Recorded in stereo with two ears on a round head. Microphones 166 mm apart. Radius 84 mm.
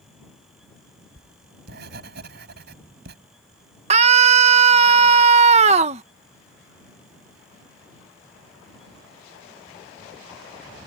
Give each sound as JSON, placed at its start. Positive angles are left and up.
{"t": 1.2, "sound": "writing", "side_deg": -65}
{"t": 3.9, "sound": "a scream", "side_deg": -35}